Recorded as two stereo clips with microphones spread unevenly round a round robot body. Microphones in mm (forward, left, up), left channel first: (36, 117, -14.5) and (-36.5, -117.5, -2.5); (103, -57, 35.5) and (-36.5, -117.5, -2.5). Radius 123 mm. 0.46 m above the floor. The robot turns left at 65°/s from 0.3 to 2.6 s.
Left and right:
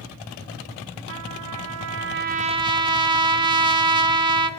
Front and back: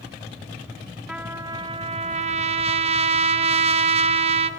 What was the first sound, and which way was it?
A trumpet, 80° right.